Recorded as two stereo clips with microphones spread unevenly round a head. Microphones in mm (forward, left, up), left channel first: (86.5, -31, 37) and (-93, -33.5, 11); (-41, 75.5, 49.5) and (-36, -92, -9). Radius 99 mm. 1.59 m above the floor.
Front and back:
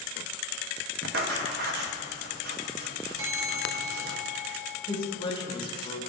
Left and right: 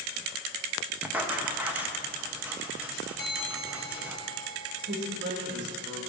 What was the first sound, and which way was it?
Writing, 170° left.